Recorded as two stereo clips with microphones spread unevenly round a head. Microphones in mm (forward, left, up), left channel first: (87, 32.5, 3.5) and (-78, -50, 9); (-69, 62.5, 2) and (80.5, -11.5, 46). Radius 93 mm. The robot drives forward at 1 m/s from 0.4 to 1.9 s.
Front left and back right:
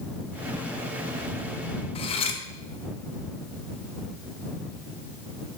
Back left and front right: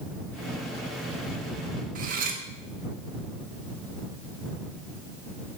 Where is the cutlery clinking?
30° right, 0.7 m.